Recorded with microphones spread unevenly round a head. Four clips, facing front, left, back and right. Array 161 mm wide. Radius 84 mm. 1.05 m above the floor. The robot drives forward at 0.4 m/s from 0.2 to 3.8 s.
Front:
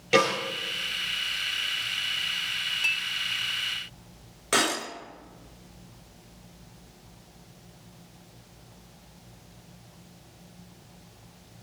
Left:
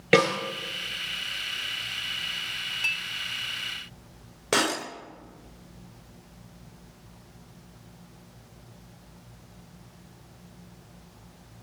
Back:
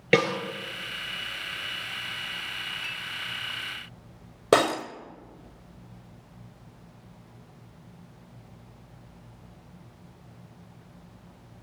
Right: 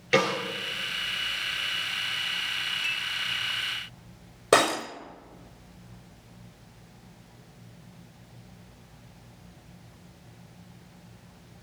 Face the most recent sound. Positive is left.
turn(degrees=-165)